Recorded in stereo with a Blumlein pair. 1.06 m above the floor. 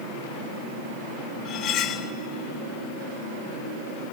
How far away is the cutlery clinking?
About 0.6 m.